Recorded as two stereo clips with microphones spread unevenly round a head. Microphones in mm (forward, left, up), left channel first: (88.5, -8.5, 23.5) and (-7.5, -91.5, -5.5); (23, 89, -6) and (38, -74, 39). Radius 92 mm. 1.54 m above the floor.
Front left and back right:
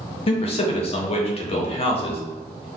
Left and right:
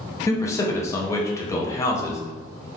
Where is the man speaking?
15° left, 0.7 m.